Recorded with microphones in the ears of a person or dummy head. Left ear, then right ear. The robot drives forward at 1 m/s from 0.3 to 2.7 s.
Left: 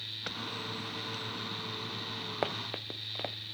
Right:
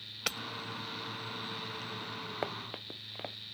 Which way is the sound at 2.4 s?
5° left (ahead or behind).